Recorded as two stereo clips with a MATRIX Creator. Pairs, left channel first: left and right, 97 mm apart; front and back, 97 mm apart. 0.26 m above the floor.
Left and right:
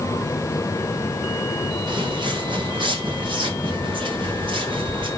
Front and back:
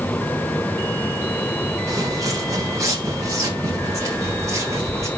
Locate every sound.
1.9 s footsteps: 125° right, 3 m; by 5.1 s 120° right, 6 m